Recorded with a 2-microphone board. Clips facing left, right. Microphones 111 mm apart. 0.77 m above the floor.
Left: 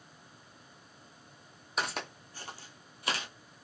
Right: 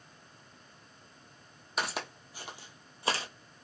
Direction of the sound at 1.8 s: Centre (ahead or behind).